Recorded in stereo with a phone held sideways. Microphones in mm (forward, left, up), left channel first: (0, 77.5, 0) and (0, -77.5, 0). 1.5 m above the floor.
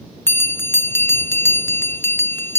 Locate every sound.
0.3 s a bell: 15° left (ahead or behind)